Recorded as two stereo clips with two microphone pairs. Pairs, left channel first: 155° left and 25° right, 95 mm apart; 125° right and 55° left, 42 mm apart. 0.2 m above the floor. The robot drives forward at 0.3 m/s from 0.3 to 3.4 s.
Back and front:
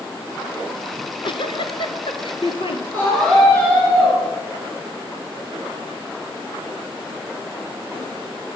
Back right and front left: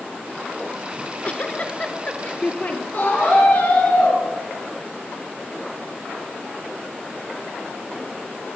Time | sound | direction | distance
1.0 | a giggle | 175° right | 0.9 m
2.9 | a scream | 135° right | 4 m